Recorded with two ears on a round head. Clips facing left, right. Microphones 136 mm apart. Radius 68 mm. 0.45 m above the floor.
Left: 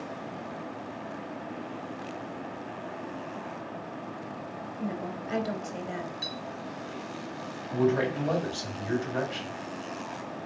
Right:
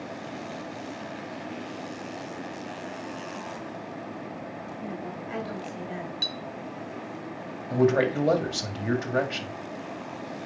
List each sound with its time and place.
4.8 s a woman speaking: 50° left (ahead or behind), 2.0 m
6.2 s a clink: 40° right (ahead or behind), 1.3 m
7.7 s a man speaking: 70° right (ahead or behind), 1.9 m